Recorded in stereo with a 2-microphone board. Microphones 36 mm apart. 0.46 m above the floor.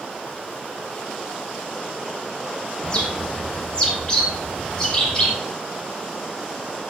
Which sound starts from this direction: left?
A bird, at 2.8 s.